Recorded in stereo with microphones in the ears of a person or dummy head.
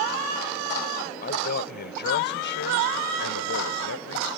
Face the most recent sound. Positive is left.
turn(degrees=75)  # may be behind; listen again after turning